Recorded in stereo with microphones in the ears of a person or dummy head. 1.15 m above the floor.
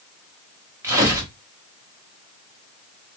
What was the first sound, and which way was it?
Tearing paper, 15° right (ahead or behind).